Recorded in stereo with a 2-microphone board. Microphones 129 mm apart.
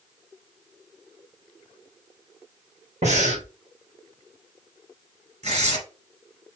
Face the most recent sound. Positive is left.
turn(degrees=-60)  # may be behind; listen again after turning